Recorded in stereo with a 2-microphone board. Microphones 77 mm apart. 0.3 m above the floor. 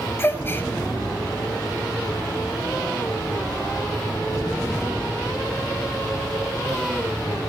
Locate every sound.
0.2 s a gasp: 30° left (ahead or behind), 1.6 m